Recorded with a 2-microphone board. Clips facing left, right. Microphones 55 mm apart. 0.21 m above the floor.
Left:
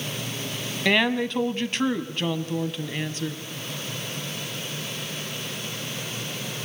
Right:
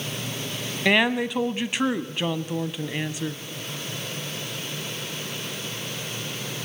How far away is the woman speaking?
About 1.2 m.